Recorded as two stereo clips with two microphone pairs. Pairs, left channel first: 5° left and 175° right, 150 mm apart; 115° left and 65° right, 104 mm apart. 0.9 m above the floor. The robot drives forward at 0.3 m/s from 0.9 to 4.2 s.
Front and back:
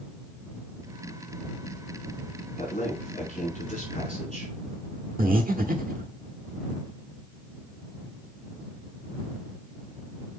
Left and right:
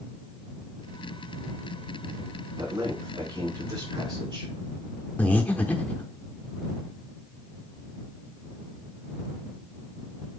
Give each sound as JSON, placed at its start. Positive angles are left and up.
{"t": 2.6, "sound": "a man speaking", "azimuth_deg": -25, "distance_m": 4.5}
{"t": 5.2, "sound": "breathing", "azimuth_deg": -170, "distance_m": 0.9}